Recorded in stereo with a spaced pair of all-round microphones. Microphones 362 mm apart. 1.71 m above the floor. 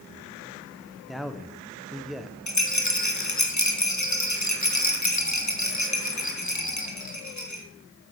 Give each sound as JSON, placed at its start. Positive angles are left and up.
{"t": 1.1, "sound": "a man speaking", "side_deg": 0, "distance_m": 1.6}
{"t": 2.5, "sound": "a rattle", "side_deg": 55, "distance_m": 2.0}